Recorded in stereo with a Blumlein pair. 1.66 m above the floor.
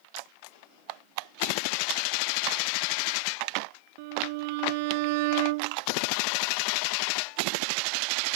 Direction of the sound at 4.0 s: 50° right.